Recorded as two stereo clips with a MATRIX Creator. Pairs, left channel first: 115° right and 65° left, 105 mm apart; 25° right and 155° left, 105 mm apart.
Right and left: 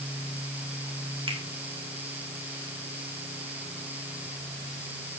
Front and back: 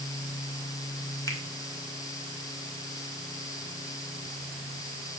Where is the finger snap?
40° left, 2 m.